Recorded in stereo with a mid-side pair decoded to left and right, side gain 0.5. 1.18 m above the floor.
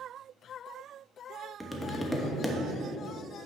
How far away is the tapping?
About 1.0 m.